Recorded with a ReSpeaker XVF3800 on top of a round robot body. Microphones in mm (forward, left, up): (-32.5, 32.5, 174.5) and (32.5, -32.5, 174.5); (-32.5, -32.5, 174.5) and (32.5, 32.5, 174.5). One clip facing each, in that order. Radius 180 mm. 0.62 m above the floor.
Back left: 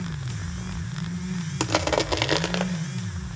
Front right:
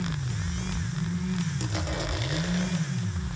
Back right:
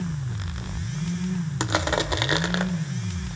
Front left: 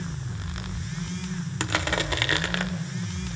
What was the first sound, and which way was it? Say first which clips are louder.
Crushing: back left 9 dB, back right 3 dB; 155° left.